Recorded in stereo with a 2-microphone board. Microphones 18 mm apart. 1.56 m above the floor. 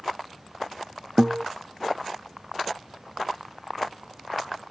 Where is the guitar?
45° right (ahead or behind), 0.6 m.